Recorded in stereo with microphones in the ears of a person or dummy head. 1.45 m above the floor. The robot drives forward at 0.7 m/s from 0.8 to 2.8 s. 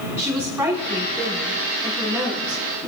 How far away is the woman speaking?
About 4.5 m.